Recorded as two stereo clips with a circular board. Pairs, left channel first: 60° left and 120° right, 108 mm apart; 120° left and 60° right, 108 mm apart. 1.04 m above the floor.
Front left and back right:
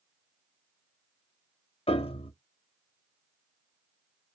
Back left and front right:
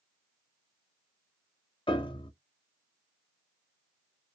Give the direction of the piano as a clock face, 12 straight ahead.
9 o'clock.